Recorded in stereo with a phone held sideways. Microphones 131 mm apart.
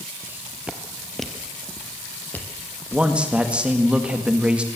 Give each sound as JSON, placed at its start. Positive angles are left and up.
{"t": 0.2, "sound": "footsteps", "side_deg": -20, "distance_m": 1.3}
{"t": 2.9, "sound": "a man speaking", "side_deg": -10, "distance_m": 1.9}